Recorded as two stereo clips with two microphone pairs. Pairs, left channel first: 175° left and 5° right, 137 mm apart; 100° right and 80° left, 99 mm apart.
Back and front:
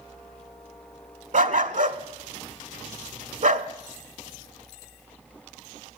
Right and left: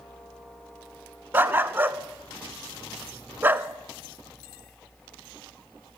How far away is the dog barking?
About 0.6 m.